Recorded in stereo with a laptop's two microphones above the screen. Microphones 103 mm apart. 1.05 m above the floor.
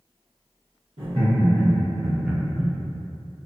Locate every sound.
1.0 s laughter: 70° right (ahead or behind), 1.2 m; by 2.7 s 30° left (ahead or behind), 0.6 m